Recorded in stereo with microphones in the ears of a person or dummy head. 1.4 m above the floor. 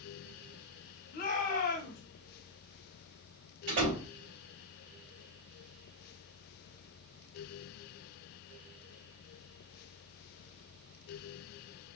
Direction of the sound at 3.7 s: 75° right (ahead or behind).